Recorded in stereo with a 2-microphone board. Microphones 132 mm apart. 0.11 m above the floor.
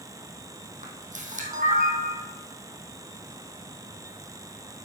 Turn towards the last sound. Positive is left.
turn(degrees=-75)  # may be behind; listen again after turning